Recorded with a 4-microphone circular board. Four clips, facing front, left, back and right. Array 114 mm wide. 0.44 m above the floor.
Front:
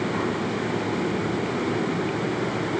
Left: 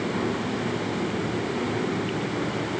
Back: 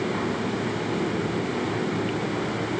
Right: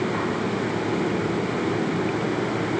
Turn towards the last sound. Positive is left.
No sound to turn to.